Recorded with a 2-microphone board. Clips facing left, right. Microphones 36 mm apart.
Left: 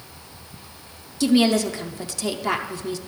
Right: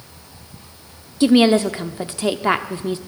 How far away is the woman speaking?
About 0.7 m.